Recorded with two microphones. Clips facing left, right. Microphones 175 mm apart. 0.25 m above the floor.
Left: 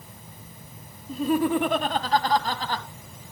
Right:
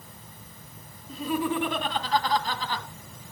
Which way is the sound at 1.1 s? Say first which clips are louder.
Left 5 dB; 50° left (ahead or behind).